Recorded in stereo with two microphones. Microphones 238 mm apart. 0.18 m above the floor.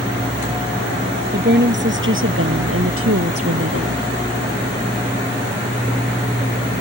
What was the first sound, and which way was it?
A woman speaking, 45° right (ahead or behind).